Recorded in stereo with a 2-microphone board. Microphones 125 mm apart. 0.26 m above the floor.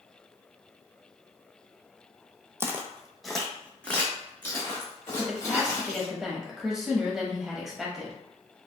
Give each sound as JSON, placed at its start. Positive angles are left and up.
{"t": 2.6, "sound": "footsteps", "side_deg": -20, "distance_m": 0.5}
{"t": 5.2, "sound": "a woman speaking", "side_deg": -5, "distance_m": 1.0}